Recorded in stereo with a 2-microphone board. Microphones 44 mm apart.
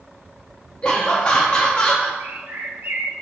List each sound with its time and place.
0.8 s laughter: 25° left (ahead or behind), 0.7 m
2.2 s a bird: 60° right (ahead or behind), 0.5 m